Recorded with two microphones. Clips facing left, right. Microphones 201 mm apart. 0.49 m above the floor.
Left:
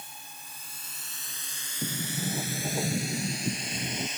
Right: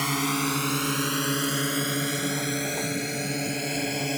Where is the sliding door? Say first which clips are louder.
Right 7 dB; 20° left (ahead or behind).